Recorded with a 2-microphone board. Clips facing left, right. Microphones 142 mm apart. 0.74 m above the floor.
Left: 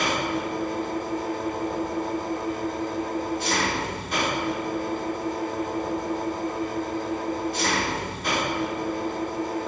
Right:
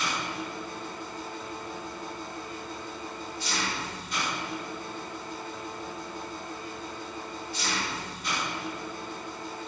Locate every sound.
0.0 s an engine running: 60° left (ahead or behind), 2 m